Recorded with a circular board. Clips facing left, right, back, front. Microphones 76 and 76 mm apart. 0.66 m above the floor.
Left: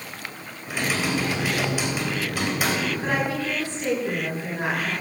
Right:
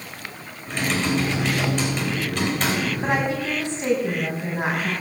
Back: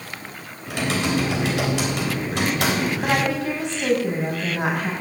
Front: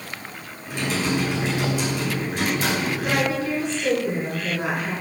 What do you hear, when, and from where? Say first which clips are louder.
0.7 s typing on a keyboard: right 2 dB, back 1 dB; 170° left, 3.5 m
3.0 s a woman speaking: right 2 dB, back 1 dB; 160° right, 6 m